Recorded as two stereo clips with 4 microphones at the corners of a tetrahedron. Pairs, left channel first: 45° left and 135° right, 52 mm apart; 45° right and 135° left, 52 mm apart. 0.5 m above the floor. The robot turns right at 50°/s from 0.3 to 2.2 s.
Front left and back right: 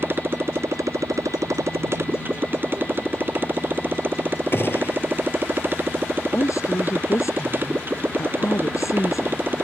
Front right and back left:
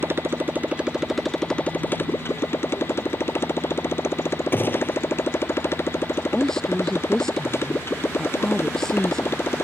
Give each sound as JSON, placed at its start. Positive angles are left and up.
{"t": 0.0, "sound": "a motorcycle", "azimuth_deg": 180}
{"t": 4.5, "sound": "a gunshot", "azimuth_deg": 5}
{"t": 6.3, "sound": "a woman speaking", "azimuth_deg": 35}